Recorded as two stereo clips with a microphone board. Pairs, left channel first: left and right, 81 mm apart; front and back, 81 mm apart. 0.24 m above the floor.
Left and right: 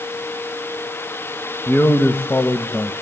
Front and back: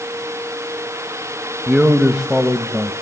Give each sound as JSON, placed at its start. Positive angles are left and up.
{"t": 1.7, "sound": "a man speaking", "azimuth_deg": 110, "distance_m": 1.0}